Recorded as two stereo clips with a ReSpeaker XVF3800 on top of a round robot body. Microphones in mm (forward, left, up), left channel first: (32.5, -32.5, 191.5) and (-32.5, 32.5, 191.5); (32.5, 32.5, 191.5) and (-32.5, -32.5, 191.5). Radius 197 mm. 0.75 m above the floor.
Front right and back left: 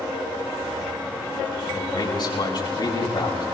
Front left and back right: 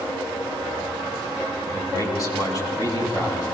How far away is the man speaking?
About 8.5 m.